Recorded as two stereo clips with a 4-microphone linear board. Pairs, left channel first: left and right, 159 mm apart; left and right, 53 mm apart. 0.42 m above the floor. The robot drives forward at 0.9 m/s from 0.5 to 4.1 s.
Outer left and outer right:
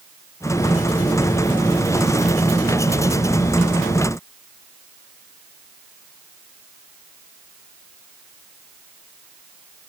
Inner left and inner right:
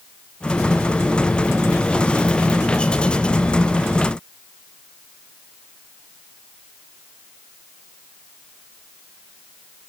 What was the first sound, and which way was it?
Only background noise.